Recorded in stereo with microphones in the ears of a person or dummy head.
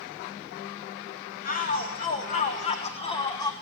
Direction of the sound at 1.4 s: 45° left (ahead or behind).